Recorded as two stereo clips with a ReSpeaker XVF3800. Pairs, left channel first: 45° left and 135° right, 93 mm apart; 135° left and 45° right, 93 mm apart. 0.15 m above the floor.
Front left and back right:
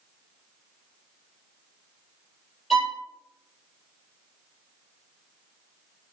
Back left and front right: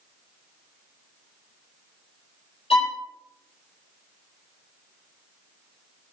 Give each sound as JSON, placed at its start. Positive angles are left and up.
{"t": 2.7, "sound": "a violin", "azimuth_deg": 135, "distance_m": 2.5}